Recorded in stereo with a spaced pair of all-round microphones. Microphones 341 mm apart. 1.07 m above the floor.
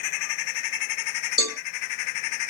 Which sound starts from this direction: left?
A cowbell, at 1.4 s.